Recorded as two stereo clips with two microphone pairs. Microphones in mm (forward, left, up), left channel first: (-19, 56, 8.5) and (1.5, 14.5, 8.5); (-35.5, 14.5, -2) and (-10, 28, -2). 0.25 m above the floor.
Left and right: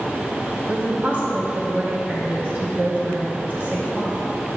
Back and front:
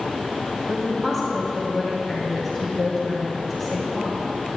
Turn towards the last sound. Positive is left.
turn(degrees=-75)